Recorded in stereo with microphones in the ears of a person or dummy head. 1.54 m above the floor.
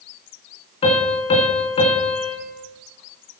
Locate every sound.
0.8 s a piano: 30° left (ahead or behind), 3.5 m